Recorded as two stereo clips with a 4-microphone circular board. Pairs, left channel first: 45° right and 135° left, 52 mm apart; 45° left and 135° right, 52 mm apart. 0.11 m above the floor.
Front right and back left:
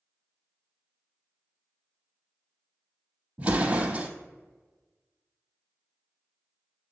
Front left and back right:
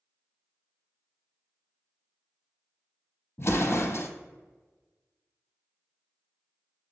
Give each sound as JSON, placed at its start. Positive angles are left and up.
{"t": 3.4, "sound": "an explosion", "azimuth_deg": 75, "distance_m": 0.5}